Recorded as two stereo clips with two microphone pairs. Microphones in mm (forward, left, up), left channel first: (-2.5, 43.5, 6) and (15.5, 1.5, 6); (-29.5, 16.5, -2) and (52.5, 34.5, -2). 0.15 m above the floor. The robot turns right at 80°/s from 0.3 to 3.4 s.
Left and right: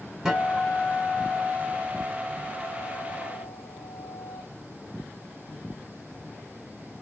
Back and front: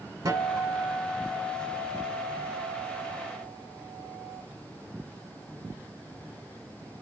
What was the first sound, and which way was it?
A guitar, 10° left.